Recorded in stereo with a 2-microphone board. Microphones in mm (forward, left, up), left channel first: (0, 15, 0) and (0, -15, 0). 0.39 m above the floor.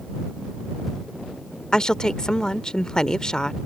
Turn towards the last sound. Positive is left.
turn(degrees=25)  # may be behind; listen again after turning